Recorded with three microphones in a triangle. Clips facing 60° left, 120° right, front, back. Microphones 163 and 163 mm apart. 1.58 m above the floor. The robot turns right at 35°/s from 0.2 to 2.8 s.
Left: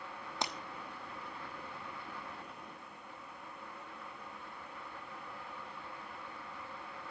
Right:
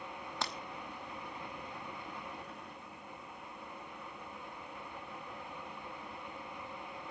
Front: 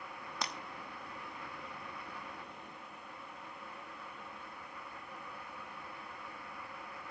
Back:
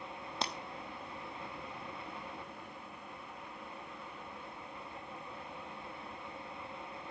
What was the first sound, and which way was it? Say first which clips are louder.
Breaking glass: left 1 dB, back 3 dB; 125° left.